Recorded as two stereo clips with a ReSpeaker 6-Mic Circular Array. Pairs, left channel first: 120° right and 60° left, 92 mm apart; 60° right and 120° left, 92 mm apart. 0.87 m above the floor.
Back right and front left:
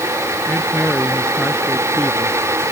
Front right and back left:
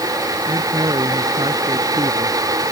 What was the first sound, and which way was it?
A man speaking, 160° left.